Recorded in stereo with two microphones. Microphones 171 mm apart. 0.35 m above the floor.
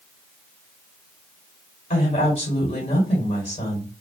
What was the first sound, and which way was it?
A woman speaking, 35° left (ahead or behind).